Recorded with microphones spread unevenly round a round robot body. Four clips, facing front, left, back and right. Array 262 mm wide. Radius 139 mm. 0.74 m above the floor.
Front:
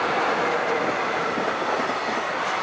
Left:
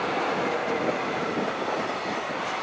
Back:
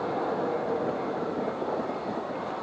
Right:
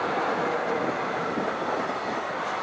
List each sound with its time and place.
Only background noise.